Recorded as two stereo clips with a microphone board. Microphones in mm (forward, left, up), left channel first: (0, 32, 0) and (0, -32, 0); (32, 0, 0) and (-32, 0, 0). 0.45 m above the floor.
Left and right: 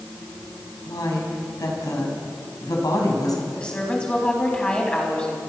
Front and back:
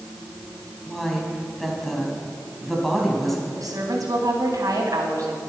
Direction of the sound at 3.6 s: 165° left.